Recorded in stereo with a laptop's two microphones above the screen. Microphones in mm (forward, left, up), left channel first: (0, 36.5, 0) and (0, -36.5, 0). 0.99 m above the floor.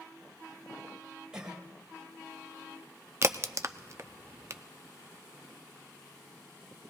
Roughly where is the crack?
Right.